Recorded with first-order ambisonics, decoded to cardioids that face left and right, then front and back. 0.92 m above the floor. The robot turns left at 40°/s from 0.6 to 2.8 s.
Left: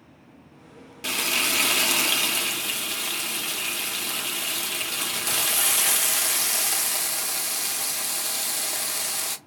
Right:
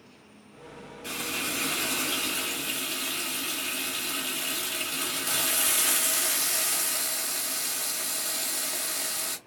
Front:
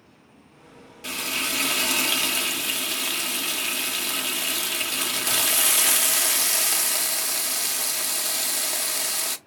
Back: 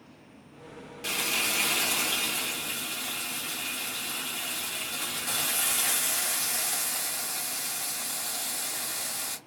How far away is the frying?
About 0.9 m.